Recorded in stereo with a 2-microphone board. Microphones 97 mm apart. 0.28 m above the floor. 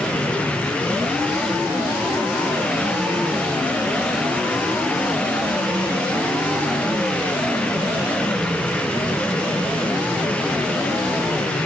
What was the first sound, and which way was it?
Only background noise.